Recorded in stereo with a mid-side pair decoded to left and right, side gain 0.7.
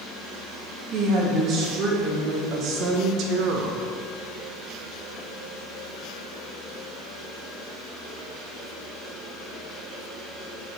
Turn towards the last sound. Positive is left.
turn(degrees=-60)